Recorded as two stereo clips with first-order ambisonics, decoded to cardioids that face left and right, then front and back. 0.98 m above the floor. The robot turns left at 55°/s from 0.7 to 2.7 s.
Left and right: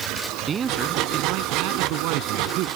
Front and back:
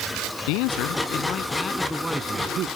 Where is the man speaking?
20° right; by 2.7 s 130° right.